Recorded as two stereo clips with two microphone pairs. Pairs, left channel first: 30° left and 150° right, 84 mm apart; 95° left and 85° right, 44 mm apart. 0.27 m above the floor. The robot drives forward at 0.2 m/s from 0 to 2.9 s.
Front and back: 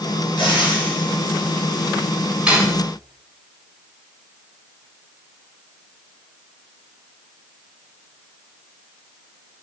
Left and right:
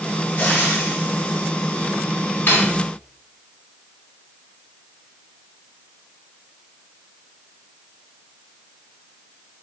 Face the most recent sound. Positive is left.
turn(degrees=135)